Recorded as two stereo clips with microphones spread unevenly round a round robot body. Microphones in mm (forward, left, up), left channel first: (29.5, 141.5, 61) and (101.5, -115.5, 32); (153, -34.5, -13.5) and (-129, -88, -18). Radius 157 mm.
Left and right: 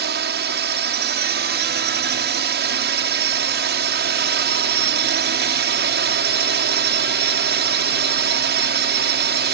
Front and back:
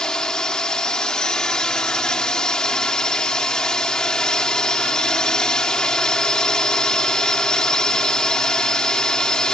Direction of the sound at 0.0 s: 75° right.